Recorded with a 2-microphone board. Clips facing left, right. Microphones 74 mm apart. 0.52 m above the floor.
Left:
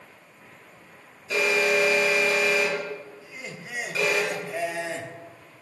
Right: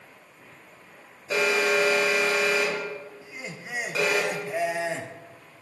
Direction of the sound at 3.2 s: 20° right (ahead or behind).